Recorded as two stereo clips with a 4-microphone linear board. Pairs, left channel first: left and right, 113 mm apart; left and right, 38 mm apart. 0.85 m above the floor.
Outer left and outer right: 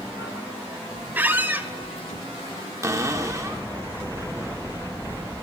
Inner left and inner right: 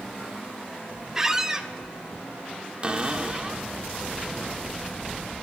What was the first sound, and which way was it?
A squeak, 15° right (ahead or behind).